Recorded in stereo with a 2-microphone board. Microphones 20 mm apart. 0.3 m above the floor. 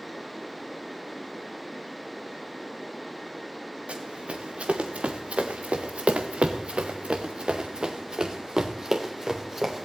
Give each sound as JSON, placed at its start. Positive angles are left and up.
{"t": 3.9, "sound": "running footsteps", "side_deg": -80, "distance_m": 2.5}